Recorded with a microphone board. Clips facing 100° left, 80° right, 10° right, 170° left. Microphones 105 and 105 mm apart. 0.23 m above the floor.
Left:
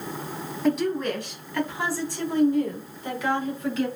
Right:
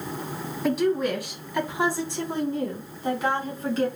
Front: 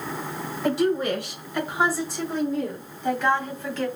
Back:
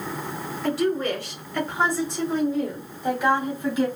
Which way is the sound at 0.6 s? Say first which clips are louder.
Right 1 dB, front 1 dB; 15° left.